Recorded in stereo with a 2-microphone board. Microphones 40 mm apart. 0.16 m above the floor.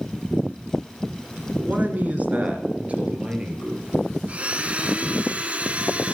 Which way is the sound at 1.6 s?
45° right (ahead or behind).